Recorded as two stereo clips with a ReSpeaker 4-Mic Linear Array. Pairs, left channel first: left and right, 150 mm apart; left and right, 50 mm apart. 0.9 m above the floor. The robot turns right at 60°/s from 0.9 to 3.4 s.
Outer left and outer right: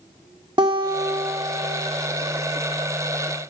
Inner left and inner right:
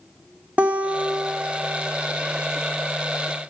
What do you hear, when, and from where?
0.6 s a guitar: 35° right, 1.1 m; by 1.8 s 20° left, 1.1 m